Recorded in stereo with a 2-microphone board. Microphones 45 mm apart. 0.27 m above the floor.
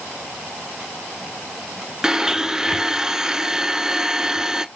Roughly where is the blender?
Centre.